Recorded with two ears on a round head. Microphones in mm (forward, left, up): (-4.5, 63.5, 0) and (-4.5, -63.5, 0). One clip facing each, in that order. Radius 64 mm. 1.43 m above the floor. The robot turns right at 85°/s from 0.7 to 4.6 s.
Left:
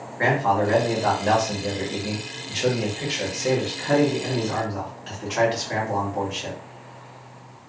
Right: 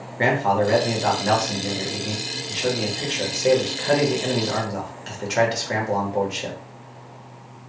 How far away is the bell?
No bell in this recording.